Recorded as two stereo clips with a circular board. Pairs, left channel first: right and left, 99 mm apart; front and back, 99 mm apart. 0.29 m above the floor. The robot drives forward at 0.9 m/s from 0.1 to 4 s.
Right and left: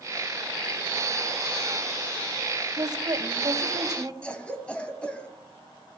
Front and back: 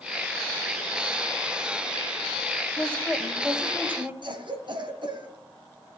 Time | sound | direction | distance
2.8 | a woman speaking | 65° left | 1.8 m
4.2 | a cough | 165° right | 2.5 m